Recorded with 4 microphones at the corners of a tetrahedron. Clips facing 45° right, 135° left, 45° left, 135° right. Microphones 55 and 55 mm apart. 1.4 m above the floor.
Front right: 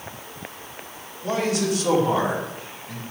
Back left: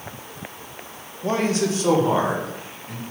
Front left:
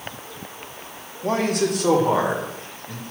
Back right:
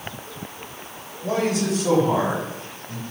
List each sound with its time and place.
1.2 s a man speaking: 80° left, 1.5 m; by 3.0 s 65° left, 2.5 m